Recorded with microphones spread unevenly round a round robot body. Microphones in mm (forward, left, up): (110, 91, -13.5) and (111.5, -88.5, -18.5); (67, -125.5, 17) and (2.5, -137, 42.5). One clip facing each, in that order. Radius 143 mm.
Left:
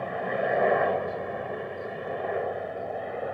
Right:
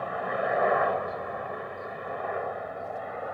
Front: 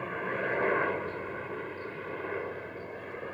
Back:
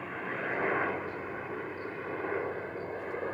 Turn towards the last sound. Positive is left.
turn(degrees=130)